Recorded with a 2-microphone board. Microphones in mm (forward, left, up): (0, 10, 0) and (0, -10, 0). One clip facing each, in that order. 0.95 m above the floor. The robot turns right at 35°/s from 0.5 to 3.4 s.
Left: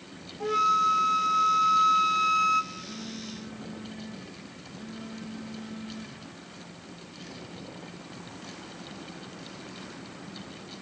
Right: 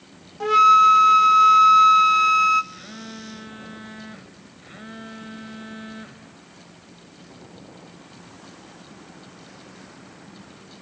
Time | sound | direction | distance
0.4 | a flute | 105° right | 0.5 m
2.7 | a phone buzzing | 50° right (ahead or behind) | 1.6 m